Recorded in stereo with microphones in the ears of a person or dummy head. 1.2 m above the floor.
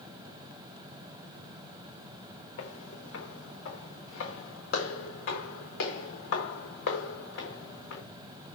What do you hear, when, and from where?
2.6 s footsteps: 65° left (ahead or behind), 4.5 m